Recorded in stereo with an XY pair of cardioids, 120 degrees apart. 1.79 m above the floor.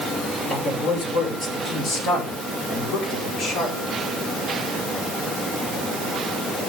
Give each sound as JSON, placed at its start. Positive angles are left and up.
{"t": 0.5, "sound": "a man speaking", "azimuth_deg": 50, "distance_m": 6.5}